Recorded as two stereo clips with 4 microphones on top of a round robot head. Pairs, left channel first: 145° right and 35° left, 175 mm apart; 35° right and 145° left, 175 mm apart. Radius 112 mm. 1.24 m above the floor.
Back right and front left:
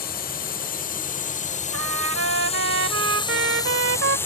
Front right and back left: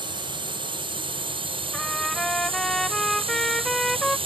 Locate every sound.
0.0 s a drone: 160° right; by 4.3 s 150° left
1.7 s a trumpet: 50° left